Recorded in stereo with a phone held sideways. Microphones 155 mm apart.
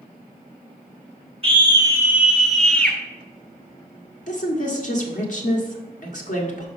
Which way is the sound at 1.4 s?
35° right (ahead or behind).